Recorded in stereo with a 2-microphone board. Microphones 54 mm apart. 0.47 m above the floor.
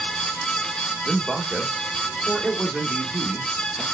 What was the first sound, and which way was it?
A man speaking, 10° right (ahead or behind).